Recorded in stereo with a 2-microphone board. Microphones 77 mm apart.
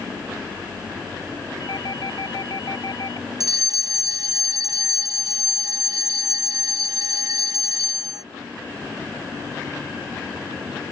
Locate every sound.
1.6 s a doorbell: 65° left (ahead or behind)
3.4 s a fire alarm: 55° right (ahead or behind)